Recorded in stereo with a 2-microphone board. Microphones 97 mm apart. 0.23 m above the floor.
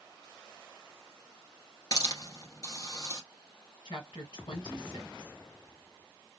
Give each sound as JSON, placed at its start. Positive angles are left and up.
{"t": 1.9, "sound": "a hiss", "side_deg": 45, "distance_m": 1.4}
{"t": 3.9, "sound": "a woman speaking", "side_deg": 60, "distance_m": 2.5}